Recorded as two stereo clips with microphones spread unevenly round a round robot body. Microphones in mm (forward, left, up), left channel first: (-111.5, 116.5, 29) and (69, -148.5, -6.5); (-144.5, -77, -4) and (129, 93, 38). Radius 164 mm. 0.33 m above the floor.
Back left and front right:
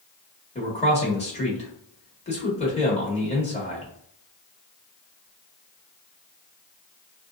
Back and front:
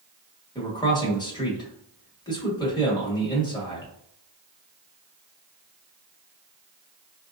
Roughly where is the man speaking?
Behind.